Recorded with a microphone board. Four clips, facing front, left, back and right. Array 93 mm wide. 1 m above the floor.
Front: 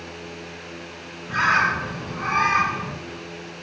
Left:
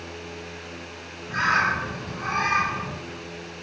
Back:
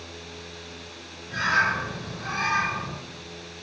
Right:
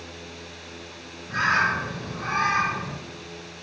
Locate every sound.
1.3 s a bird: straight ahead, 2 m